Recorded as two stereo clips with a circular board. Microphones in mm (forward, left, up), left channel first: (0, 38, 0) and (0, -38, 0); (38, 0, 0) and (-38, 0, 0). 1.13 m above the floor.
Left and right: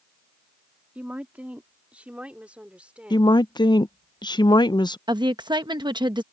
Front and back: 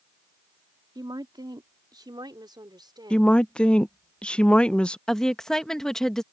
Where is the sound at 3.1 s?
75° left.